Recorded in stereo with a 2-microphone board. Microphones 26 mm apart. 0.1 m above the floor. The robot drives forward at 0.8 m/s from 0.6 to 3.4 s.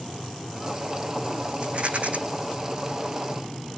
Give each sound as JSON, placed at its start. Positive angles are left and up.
{"t": 1.6, "sound": "a rattle", "side_deg": -45, "distance_m": 1.9}